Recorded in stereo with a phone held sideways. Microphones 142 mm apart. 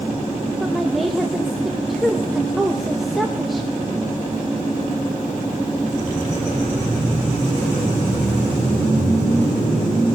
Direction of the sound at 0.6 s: Centre (ahead or behind).